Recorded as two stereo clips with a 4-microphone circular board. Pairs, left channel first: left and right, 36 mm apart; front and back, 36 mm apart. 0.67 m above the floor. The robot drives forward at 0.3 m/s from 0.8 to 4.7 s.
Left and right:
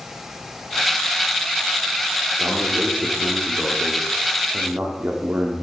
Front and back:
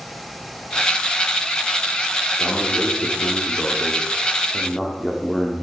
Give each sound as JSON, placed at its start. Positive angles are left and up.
{"t": 2.4, "sound": "a man speaking", "azimuth_deg": -60, "distance_m": 1.5}